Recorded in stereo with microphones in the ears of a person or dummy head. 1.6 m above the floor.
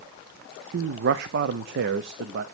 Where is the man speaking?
65° right (ahead or behind), 0.6 m.